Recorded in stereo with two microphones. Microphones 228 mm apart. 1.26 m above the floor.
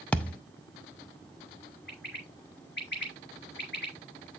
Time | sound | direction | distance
0.1 | a thud | 5° left (ahead or behind) | 0.5 m
1.9 | a bird | 50° left (ahead or behind) | 2.5 m